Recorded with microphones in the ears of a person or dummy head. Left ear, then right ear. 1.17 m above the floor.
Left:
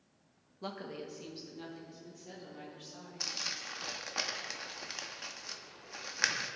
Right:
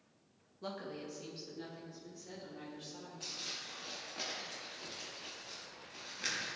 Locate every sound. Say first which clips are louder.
0.6 s a woman speaking: left 1 dB; 30° left (ahead or behind), 1.3 m; by 3.3 s 25° left (ahead or behind), 4.5 m
3.2 s crumpling: left 6 dB; 60° left (ahead or behind), 1.0 m